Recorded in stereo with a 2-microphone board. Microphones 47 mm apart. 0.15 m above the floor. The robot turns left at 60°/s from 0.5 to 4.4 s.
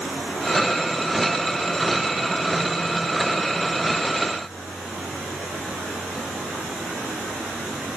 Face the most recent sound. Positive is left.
No sound to turn to.